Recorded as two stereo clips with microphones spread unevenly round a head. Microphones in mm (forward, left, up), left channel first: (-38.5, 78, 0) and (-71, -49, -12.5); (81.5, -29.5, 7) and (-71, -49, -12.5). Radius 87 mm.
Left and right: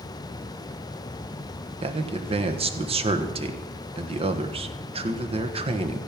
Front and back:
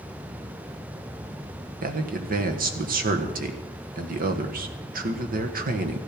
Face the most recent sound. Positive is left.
turn(degrees=-145)